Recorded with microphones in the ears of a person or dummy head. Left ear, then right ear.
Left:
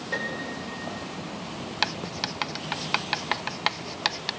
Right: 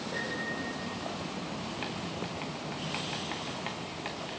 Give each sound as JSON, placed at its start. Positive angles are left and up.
{"t": 0.1, "sound": "a piano", "side_deg": 70, "distance_m": 6.0}
{"t": 1.8, "sound": "writing", "side_deg": 65, "distance_m": 0.6}